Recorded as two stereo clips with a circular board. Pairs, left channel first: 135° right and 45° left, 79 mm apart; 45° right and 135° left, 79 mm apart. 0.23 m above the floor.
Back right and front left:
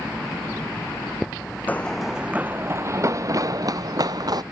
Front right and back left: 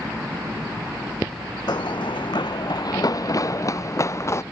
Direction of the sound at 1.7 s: 70° right.